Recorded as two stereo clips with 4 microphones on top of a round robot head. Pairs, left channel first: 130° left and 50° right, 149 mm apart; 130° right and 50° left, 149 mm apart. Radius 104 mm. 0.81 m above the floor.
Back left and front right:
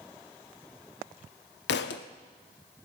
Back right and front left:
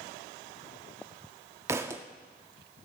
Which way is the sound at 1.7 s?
125° left.